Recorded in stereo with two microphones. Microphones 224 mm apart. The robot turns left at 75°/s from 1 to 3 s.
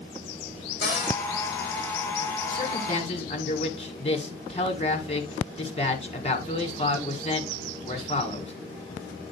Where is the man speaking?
75° left, 1.9 m; by 8.5 s 35° left, 1.9 m.